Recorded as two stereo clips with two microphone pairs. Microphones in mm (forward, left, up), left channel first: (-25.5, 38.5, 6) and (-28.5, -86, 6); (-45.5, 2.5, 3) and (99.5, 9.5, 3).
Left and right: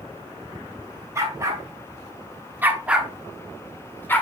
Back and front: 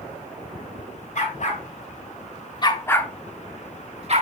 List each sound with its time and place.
1.1 s a dog barking: 155° right, 3 m; by 4.2 s 20° left, 1.8 m